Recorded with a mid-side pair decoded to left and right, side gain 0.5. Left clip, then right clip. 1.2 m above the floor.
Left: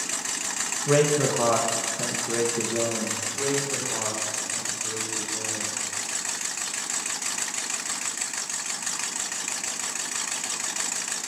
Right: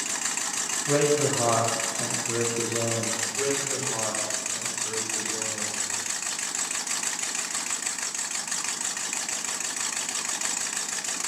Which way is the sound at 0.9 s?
60° left.